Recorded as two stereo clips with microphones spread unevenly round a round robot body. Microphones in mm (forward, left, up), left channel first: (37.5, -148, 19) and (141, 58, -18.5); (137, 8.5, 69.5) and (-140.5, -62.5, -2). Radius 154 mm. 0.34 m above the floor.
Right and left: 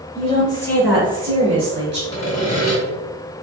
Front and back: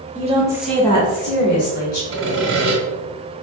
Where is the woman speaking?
Straight behind, 1.2 m; by 2.0 s 25° left, 1.5 m.